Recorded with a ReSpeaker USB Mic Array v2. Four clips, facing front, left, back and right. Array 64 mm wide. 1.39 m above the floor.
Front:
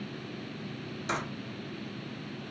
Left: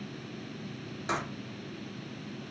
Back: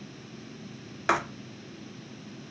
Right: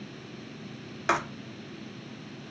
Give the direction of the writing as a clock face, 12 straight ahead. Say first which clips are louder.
Right 6 dB, back 8 dB; 5 o'clock.